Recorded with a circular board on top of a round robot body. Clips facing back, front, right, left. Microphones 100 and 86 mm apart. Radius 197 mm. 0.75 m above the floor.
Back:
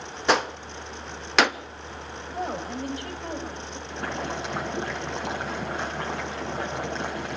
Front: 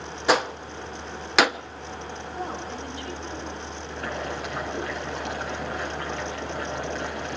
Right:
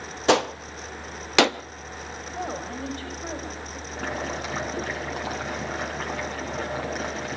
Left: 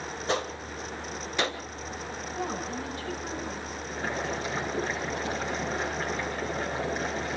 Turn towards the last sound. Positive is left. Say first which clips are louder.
# back 1 dB, right 1 dB
turn(degrees=-115)